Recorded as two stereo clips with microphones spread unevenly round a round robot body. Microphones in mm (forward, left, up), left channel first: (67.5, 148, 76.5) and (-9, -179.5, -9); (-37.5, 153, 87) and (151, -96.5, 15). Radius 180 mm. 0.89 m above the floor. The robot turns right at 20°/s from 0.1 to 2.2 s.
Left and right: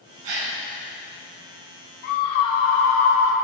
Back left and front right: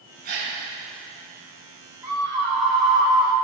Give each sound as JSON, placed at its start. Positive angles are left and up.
{"t": 0.2, "sound": "a gasp", "azimuth_deg": -125, "distance_m": 3.0}
{"t": 2.0, "sound": "a scream", "azimuth_deg": 30, "distance_m": 2.0}